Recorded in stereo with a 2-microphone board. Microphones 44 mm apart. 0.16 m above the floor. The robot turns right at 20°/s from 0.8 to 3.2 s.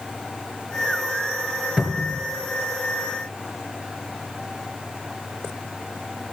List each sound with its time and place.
1.8 s a cupboard door: 20° right (ahead or behind), 1.3 m; by 2.2 s 15° right (ahead or behind), 1.3 m